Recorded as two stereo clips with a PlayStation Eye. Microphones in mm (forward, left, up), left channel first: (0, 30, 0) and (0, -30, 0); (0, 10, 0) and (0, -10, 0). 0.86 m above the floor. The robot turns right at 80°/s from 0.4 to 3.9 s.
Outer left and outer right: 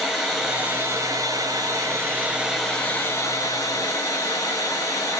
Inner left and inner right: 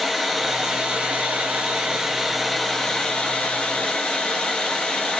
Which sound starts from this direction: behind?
Running water, at 0.0 s.